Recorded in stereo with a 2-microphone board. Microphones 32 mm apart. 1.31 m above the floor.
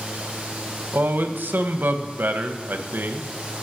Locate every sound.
0.9 s a man speaking: 80° right, 0.9 m